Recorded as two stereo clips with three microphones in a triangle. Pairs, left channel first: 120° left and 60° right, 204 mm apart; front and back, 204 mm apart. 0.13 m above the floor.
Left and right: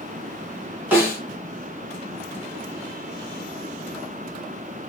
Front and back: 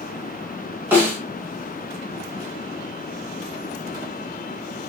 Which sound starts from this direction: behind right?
A snare drum, at 0.9 s.